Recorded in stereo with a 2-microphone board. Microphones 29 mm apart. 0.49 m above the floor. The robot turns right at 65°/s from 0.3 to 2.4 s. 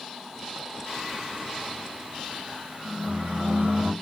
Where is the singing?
170° left, 1.9 m; by 3.9 s 90° right, 1.9 m.